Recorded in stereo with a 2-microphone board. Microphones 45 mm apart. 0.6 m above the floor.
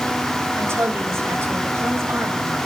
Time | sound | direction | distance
0.6 | a woman speaking | 70° right (ahead or behind) | 3.5 m